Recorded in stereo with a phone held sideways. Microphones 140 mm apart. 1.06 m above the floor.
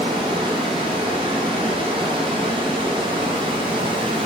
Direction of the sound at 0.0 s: 40° right (ahead or behind).